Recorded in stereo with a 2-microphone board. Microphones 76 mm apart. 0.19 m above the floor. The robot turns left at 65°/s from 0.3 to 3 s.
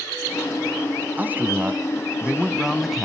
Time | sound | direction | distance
1.2 | a man speaking | 25° right (ahead or behind) | 1.1 m